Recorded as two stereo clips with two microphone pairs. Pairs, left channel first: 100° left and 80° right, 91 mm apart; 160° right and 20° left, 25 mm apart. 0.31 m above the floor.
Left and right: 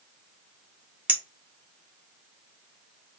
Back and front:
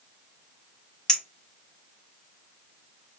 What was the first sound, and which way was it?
A clink, 125° right.